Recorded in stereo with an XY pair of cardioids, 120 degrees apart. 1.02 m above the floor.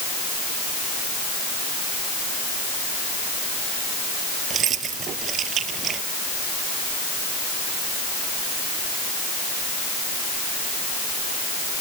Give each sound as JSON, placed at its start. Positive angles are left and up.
{"t": 4.5, "sound": "keys jangling", "azimuth_deg": -55}